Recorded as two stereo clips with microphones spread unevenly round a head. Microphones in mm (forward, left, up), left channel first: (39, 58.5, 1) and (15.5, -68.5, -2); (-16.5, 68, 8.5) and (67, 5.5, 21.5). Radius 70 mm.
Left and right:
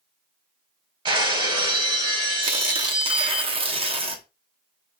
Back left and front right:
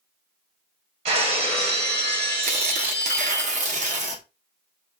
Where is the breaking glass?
50° right, 1.6 m.